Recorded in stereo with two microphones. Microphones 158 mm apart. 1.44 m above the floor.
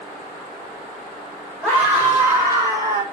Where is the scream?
10° left (ahead or behind), 5 m; by 3.0 s 30° left (ahead or behind), 4 m.